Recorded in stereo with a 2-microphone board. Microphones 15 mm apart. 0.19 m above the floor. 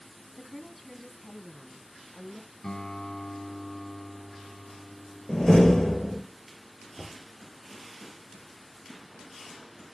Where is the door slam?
60° left (ahead or behind), 3 m.